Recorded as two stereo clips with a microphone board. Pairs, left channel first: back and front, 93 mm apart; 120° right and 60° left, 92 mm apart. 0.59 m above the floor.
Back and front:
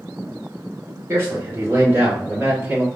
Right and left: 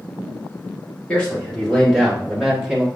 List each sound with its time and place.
1.1 s a man speaking: 45° right, 1.6 m; by 2.9 s 5° right, 1.1 m